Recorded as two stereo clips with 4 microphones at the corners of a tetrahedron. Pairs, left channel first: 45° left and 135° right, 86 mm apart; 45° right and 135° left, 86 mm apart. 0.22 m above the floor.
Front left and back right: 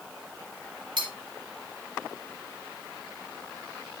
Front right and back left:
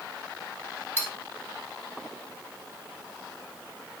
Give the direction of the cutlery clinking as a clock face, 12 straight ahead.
4 o'clock.